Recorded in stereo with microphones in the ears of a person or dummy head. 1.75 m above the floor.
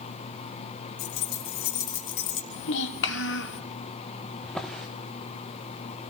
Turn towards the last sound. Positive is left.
turn(degrees=5)  # may be behind; listen again after turning